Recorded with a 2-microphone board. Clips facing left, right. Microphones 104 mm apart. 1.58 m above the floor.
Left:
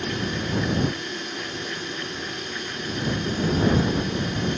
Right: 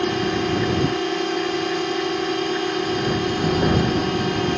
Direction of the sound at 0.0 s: 80° right.